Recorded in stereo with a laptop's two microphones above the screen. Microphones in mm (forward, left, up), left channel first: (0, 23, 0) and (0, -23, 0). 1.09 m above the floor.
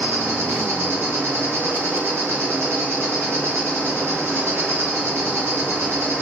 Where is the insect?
65° right (ahead or behind), 1.0 m.